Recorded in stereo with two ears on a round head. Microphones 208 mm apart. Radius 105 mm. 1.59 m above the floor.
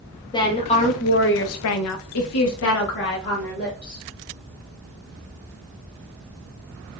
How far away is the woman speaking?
About 0.9 m.